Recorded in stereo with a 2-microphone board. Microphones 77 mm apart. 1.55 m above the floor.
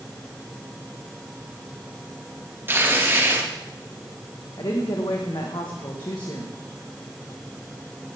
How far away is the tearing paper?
About 3 m.